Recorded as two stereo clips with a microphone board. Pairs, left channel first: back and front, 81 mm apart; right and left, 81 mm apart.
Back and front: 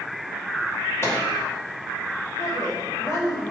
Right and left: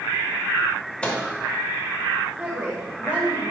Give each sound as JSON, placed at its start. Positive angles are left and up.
{"t": 1.0, "sound": "a microwave", "azimuth_deg": -155, "distance_m": 1.2}
{"t": 2.4, "sound": "a woman speaking", "azimuth_deg": 155, "distance_m": 2.0}